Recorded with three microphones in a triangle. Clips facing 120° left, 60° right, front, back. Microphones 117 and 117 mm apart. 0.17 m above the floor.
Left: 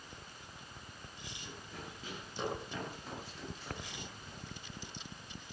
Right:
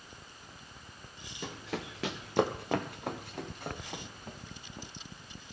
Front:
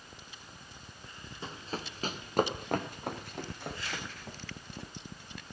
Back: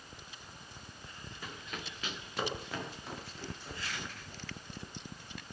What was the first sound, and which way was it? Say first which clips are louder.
Running footsteps: right 11 dB, front 6 dB; 65° right.